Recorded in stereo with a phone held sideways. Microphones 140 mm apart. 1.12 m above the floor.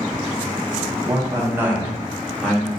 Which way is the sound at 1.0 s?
20° right (ahead or behind).